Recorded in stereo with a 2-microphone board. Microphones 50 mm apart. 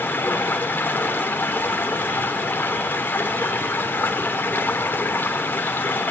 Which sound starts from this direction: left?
Running water, at 0.0 s.